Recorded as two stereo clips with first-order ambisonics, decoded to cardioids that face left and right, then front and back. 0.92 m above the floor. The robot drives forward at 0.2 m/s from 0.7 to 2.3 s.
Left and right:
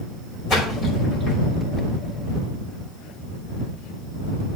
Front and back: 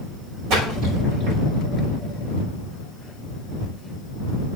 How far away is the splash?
About 5.5 m.